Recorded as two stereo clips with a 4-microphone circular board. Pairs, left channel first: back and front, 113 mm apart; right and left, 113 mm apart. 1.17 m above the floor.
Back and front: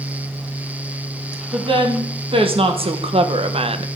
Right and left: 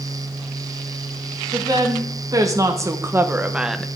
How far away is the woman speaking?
About 1.8 m.